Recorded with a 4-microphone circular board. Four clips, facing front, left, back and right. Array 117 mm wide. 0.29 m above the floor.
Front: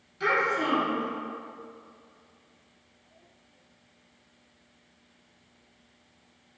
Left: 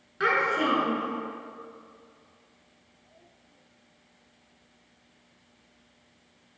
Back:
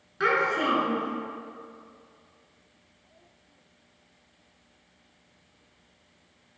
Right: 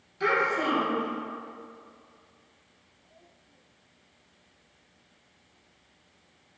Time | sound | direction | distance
0.2 | a child speaking | 140° left | 2 m